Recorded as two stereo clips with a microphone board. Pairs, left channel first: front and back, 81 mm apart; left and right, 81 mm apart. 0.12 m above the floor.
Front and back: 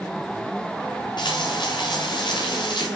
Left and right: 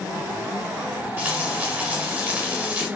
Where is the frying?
20° right, 7.5 m.